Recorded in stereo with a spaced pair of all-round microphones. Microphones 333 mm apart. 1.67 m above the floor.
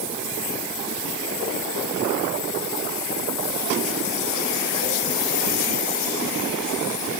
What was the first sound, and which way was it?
Only background noise.